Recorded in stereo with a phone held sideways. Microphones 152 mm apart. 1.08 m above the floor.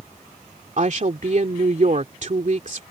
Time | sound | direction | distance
0.8 | a woman speaking | 55° right (ahead or behind) | ?